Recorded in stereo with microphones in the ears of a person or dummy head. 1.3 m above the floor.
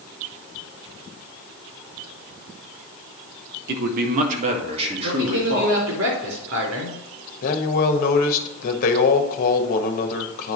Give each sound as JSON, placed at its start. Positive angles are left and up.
{"t": 3.7, "sound": "a man speaking", "side_deg": -55, "distance_m": 1.5}
{"t": 5.0, "sound": "a man speaking", "side_deg": -90, "distance_m": 4.0}
{"t": 7.4, "sound": "a man speaking", "side_deg": 60, "distance_m": 1.4}